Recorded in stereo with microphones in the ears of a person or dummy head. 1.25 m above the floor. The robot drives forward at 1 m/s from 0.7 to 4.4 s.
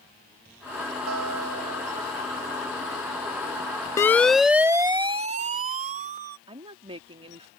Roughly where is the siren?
Centre.